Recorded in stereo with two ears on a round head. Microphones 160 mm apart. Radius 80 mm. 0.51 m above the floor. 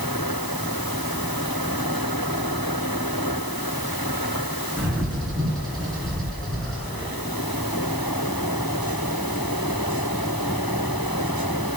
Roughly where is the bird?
Centre.